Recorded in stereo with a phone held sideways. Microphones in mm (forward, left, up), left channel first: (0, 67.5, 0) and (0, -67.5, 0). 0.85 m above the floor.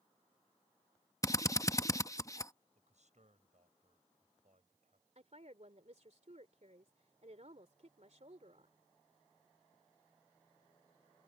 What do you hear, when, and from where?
1.2 s a drill: 25° left (ahead or behind)
2.8 s a man speaking: 60° right (ahead or behind)
5.2 s a woman speaking: 60° right (ahead or behind)